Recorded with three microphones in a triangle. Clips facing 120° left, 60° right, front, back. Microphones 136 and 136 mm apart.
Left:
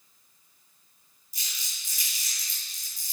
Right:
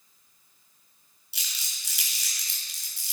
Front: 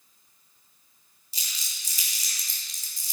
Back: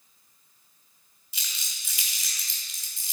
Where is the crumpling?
55° right, 4 m.